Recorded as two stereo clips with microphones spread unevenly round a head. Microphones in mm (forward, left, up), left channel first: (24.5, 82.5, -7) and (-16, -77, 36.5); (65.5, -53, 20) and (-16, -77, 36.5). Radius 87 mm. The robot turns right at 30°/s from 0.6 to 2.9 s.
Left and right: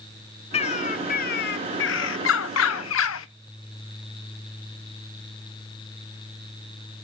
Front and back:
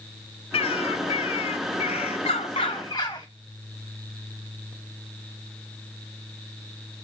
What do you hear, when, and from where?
0.5 s a bird: 15° left, 0.9 m; by 3.3 s 85° left, 0.9 m